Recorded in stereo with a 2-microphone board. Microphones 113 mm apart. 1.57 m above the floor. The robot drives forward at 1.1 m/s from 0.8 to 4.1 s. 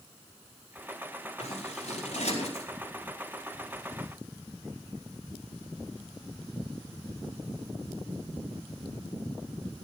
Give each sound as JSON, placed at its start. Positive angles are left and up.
{"t": 1.4, "sound": "scissors", "side_deg": 80, "distance_m": 4.5}